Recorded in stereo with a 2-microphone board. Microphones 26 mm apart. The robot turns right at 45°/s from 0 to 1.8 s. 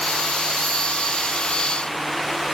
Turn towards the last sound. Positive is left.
No sound to turn to.